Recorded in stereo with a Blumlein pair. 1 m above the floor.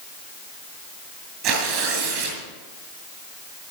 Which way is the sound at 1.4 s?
40° right.